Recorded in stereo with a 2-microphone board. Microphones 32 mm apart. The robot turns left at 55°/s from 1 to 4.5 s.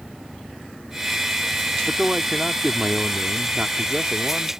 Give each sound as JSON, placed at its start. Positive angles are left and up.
{"t": 1.8, "sound": "a man speaking", "azimuth_deg": -10}